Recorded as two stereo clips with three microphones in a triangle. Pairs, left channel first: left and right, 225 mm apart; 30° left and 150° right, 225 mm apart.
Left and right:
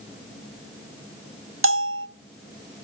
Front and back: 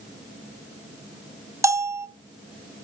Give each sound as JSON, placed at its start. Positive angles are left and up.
{"t": 1.6, "sound": "a bell", "azimuth_deg": -70, "distance_m": 0.6}